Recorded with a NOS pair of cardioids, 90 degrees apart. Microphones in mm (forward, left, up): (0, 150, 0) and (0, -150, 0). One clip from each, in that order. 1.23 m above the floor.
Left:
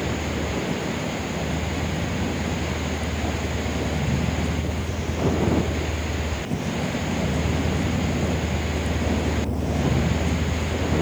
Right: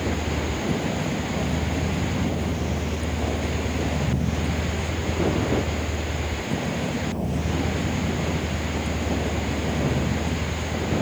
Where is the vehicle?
25° right; by 11.0 s 25° left.